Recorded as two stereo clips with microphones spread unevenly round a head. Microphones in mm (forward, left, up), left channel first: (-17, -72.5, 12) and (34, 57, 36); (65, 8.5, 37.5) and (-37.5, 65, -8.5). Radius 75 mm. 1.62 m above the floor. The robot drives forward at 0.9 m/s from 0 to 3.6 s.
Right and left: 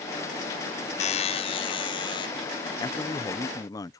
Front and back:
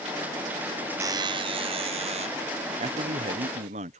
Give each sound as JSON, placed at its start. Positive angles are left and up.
{"t": 1.0, "sound": "a buzzer", "azimuth_deg": -150}
{"t": 2.8, "sound": "a man speaking", "azimuth_deg": -175}